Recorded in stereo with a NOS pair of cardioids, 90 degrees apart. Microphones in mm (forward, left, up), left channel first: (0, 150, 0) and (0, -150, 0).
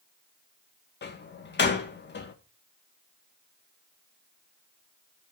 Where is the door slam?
35° left, 1.9 m.